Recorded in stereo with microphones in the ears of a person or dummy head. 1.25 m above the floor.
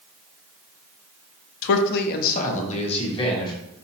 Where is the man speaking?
75° left (ahead or behind), 0.5 m; by 3.5 s 25° left (ahead or behind), 1.2 m.